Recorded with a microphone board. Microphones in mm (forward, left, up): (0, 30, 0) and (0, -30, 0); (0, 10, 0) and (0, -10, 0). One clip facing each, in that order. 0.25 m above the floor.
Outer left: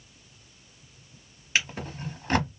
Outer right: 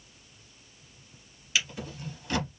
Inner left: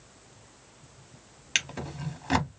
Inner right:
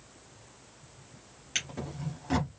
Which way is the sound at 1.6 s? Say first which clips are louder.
Outer left 3 dB, inner left 5 dB; 50° left (ahead or behind).